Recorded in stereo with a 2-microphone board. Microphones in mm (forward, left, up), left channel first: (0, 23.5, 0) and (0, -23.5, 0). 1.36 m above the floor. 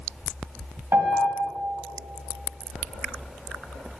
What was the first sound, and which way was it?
A piano, 75° right (ahead or behind).